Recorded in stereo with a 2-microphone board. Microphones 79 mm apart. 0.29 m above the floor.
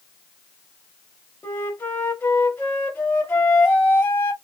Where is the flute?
25° left (ahead or behind), 1.5 m.